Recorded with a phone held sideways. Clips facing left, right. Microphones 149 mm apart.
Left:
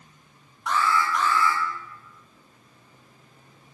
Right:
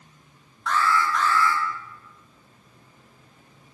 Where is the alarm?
15° left (ahead or behind), 1.8 m.